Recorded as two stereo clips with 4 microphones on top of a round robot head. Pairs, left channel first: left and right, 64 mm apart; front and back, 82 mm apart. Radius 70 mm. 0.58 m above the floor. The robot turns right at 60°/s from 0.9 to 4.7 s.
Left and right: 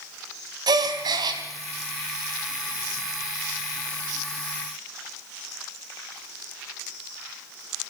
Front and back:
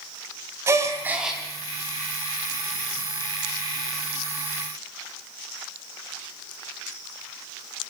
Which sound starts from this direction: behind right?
A gasp, at 0.7 s.